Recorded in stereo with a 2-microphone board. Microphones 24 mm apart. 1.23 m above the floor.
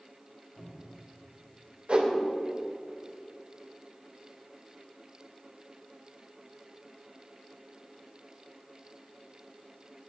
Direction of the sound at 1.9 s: 50° right (ahead or behind).